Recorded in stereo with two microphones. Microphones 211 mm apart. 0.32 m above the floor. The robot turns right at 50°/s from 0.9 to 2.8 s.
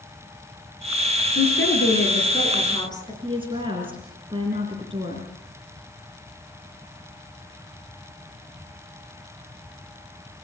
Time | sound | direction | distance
1.4 | a woman speaking | 85° left | 6 m
3.2 | a woman speaking | 25° right (ahead or behind) | 3.5 m